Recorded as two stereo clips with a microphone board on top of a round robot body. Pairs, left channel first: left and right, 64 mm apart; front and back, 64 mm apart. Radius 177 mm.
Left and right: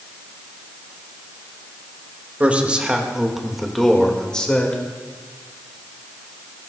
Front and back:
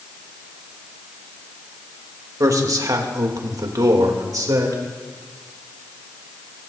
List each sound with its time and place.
2.4 s a man speaking: 155° right, 2.5 m; by 4.8 s 160° left, 2.5 m